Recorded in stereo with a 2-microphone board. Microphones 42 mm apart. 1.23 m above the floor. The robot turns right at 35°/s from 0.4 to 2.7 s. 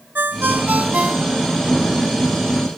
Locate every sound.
0.1 s a ringtone: 50° right; by 1.6 s 10° right